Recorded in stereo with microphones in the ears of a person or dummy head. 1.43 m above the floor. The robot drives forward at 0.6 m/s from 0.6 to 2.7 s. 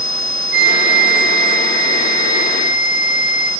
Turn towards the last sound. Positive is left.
turn(degrees=-20)  # may be behind; listen again after turning